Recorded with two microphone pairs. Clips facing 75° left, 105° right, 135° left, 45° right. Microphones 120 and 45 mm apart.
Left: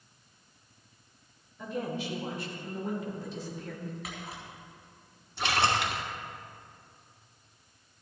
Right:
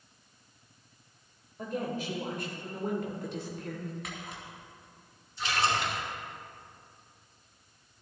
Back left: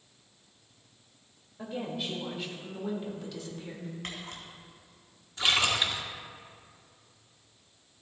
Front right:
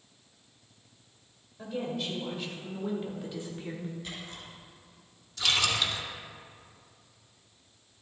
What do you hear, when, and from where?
1.6 s a woman speaking: 150° right, 3.5 m; by 3.9 s 90° right, 2 m
4.0 s a camera shutter: 160° left, 3.5 m
5.4 s a splash: 70° left, 1.3 m